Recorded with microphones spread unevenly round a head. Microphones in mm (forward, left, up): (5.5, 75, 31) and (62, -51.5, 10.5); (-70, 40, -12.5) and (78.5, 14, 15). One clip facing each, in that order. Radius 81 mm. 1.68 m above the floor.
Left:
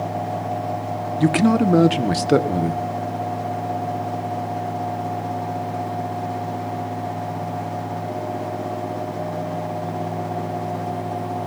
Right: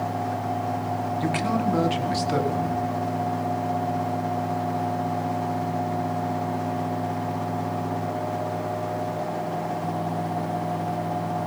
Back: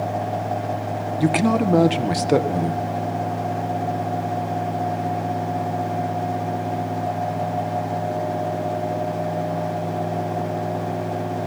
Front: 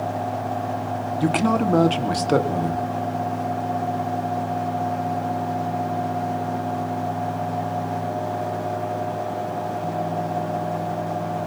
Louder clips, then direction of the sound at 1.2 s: Left 10 dB, back 2 dB; 90° left.